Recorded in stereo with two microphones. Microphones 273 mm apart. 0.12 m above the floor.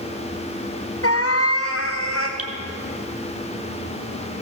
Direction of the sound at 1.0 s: 55° left (ahead or behind).